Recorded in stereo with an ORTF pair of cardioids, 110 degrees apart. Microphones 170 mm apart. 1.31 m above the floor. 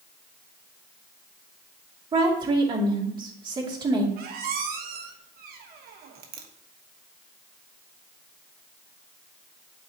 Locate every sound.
2.1 s a woman speaking: 30° right, 2.5 m
4.2 s a squeak: 60° right, 1.1 m